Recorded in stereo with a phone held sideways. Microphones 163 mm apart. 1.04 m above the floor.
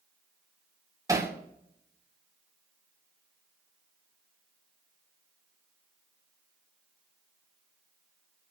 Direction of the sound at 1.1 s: 20° right (ahead or behind).